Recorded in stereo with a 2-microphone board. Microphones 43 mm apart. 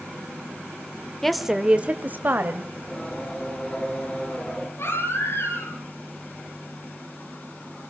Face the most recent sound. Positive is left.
turn(degrees=60)  # may be behind; listen again after turning